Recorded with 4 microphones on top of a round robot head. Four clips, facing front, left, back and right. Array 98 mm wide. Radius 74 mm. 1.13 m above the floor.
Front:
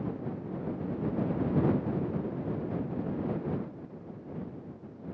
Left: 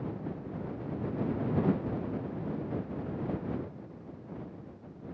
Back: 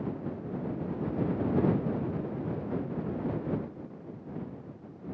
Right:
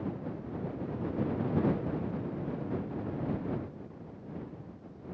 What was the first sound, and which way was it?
Only background noise.